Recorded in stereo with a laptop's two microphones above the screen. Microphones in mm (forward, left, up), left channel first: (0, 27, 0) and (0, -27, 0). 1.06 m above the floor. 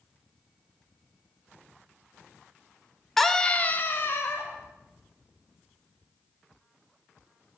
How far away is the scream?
About 0.8 m.